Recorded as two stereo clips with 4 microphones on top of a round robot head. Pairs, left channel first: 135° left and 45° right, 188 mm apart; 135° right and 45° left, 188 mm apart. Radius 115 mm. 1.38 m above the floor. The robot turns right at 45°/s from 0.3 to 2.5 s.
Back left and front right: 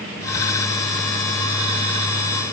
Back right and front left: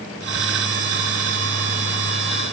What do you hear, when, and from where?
Only background noise.